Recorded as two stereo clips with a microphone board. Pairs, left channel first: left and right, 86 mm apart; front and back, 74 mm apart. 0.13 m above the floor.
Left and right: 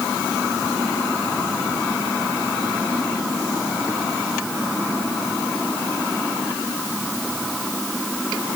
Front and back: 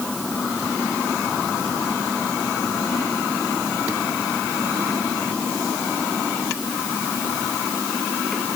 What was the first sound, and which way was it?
Only background noise.